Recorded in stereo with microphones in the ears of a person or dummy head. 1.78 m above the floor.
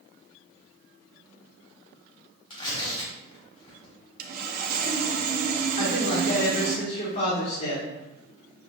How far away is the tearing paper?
About 1.4 m.